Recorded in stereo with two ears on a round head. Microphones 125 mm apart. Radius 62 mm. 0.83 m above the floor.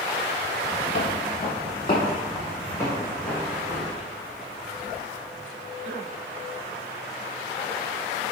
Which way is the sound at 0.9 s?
60° left (ahead or behind).